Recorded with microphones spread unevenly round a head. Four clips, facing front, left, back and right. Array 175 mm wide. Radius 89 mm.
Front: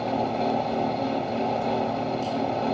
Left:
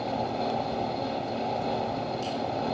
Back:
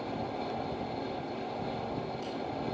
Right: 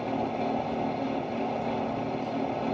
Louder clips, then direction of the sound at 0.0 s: Even, front 11 dB; 5° left.